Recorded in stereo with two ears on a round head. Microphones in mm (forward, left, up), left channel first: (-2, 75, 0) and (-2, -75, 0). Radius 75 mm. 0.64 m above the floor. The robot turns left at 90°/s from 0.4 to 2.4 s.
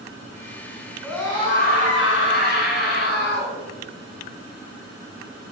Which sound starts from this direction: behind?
A scream, at 1.0 s.